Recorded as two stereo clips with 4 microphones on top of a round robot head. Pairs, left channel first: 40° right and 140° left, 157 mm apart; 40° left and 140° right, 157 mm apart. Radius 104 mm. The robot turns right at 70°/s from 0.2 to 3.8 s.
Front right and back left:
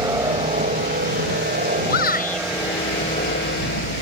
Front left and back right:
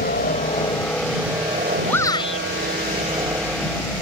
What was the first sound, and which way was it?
A helicopter, 70° left.